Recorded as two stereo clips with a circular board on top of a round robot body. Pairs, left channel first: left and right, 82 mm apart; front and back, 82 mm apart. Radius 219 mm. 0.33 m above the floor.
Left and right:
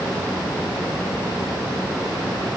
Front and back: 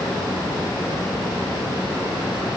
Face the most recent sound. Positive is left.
No sound to turn to.